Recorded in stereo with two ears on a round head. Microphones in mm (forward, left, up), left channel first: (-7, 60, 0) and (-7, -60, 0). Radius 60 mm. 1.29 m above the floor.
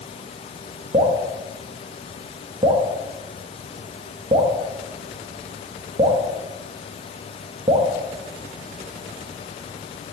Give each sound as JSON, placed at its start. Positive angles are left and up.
{"t": 0.9, "sound": "dripping", "side_deg": -40, "distance_m": 1.1}